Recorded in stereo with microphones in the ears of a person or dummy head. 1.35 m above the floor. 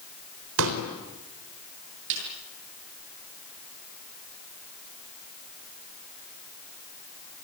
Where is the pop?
65° right (ahead or behind), 4 m.